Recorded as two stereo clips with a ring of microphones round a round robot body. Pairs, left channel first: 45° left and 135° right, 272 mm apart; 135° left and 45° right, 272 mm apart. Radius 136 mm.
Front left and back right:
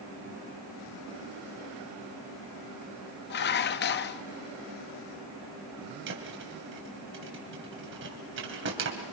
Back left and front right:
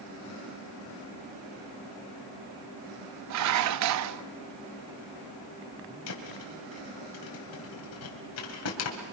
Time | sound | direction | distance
3.3 | dishes clattering | 10° right | 0.6 m
6.1 | a thud | 175° left | 3 m